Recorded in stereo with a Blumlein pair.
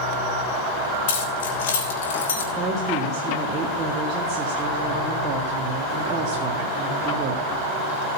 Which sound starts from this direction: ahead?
A woman speaking, at 2.5 s.